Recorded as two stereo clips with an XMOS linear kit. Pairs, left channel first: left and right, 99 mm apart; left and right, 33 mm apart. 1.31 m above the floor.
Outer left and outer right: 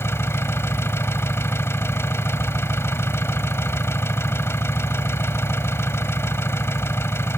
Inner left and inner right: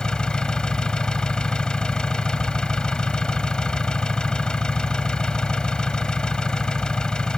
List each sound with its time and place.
0.0 s an engine running: 25° left (ahead or behind)